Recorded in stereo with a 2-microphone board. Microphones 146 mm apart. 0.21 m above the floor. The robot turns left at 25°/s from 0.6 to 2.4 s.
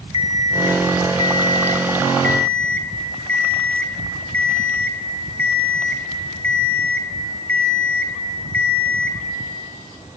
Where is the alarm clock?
60° left, 1.2 m; by 9.2 s 15° left, 1.2 m.